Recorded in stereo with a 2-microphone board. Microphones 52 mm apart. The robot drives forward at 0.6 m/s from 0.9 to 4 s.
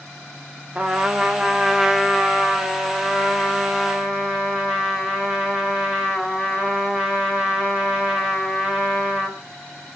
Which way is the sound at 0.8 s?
20° right (ahead or behind).